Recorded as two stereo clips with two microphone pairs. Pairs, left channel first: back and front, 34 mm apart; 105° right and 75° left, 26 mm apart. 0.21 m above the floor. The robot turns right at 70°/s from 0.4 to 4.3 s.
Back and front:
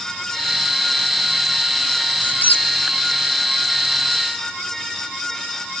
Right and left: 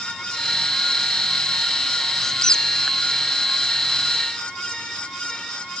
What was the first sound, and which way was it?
A squeak, 175° right.